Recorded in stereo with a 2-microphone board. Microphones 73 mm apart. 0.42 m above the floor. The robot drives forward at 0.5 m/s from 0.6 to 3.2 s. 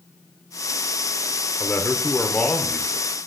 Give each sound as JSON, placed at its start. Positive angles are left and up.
{"t": 1.6, "sound": "a man speaking", "side_deg": 25, "distance_m": 0.9}